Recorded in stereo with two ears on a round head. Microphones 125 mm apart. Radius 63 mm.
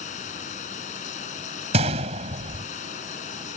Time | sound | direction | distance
0.0 | running water | 60° left (ahead or behind) | ?
1.7 | a gunshot | 50° right (ahead or behind) | ?